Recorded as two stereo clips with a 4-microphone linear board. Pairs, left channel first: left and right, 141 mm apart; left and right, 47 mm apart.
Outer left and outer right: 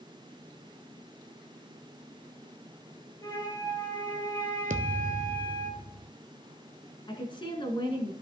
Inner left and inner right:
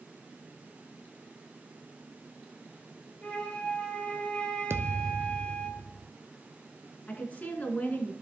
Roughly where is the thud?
Right.